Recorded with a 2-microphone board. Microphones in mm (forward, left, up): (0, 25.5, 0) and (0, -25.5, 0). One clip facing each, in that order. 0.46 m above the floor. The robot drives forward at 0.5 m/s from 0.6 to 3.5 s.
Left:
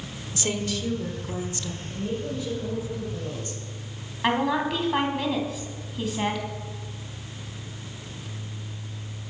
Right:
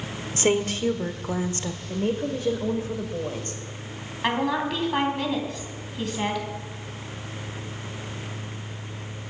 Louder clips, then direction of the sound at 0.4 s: Right 6 dB; 40° right (ahead or behind).